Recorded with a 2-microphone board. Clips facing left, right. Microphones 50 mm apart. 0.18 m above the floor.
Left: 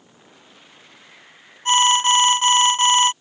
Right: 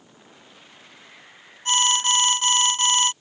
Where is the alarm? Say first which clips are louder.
Left 6 dB; 30° left (ahead or behind).